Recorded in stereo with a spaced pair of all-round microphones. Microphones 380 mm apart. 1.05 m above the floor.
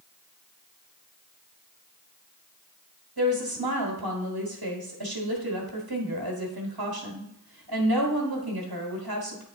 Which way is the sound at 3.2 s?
75° right (ahead or behind).